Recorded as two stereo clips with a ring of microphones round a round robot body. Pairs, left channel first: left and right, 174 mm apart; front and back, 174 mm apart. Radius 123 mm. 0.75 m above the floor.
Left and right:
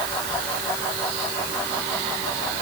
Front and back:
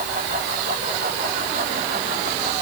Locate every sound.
Only background noise.